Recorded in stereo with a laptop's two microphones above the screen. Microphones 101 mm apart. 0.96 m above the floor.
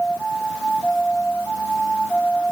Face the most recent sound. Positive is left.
No sound to turn to.